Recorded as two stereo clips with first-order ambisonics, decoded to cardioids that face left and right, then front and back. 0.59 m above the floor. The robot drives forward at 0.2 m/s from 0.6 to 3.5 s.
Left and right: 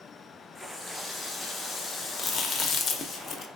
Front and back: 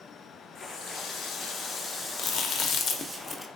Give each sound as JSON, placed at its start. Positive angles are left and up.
{"t": 0.6, "sound": "a running tap", "azimuth_deg": 15, "distance_m": 0.6}
{"t": 2.2, "sound": "chewing", "azimuth_deg": 30, "distance_m": 0.6}